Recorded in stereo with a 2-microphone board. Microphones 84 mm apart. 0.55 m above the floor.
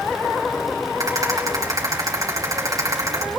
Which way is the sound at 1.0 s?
45° right (ahead or behind).